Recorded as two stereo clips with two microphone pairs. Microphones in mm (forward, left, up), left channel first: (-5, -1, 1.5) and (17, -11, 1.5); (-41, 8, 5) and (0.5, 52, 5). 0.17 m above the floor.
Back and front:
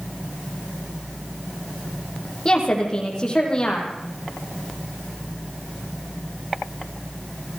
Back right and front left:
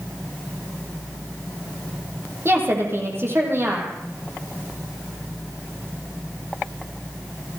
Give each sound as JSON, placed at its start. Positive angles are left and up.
{"t": 2.5, "sound": "a woman speaking", "azimuth_deg": 95, "distance_m": 8.0}